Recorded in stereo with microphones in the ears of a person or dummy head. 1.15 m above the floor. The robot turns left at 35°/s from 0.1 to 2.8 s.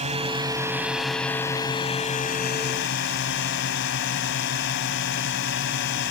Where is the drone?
150° right; by 6.1 s 115° left.